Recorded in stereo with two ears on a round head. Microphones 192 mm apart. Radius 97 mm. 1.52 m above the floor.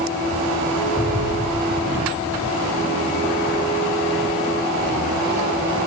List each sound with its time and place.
1.0 s an explosion: 5° right (ahead or behind), 7.5 m